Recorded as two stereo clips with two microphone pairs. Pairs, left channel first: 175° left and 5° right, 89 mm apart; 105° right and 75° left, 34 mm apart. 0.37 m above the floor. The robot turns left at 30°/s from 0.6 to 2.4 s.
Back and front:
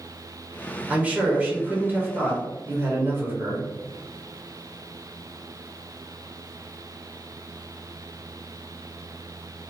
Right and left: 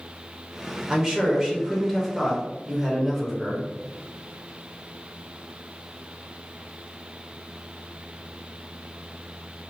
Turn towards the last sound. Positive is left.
turn(degrees=-5)